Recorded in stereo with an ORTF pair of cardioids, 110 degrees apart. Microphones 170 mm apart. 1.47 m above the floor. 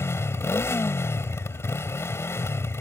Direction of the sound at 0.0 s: 15° left.